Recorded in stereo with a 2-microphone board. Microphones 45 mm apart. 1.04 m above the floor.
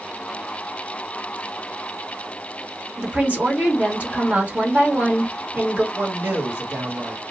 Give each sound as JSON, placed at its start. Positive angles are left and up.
{"t": 3.0, "sound": "a woman speaking", "side_deg": -35, "distance_m": 1.6}
{"t": 5.9, "sound": "a man speaking", "side_deg": -50, "distance_m": 1.3}